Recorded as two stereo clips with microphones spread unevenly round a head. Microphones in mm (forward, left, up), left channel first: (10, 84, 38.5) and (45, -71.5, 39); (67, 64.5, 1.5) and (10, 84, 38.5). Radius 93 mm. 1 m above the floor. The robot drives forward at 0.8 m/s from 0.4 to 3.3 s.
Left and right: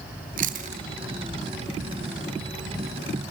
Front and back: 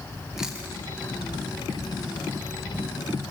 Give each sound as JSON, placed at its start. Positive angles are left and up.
{"t": 0.4, "sound": "chewing", "azimuth_deg": -90, "distance_m": 0.8}